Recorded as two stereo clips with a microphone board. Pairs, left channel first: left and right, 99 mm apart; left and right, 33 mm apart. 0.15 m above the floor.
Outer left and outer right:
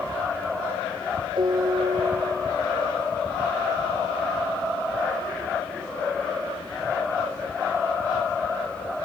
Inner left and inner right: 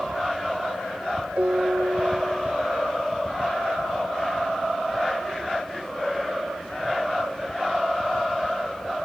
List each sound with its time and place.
1.4 s a piano: 50° right (ahead or behind)